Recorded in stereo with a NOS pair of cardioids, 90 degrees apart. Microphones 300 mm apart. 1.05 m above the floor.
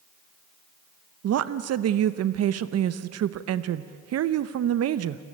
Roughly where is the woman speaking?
Ahead right.